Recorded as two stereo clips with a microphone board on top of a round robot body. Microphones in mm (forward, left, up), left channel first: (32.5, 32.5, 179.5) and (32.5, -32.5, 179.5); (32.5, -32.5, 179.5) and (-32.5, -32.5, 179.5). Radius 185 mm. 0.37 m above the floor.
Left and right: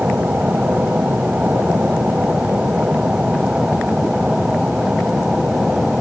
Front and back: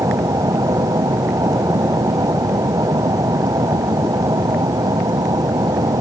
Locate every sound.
0.0 s an aircraft: 160° right; by 6.0 s 170° right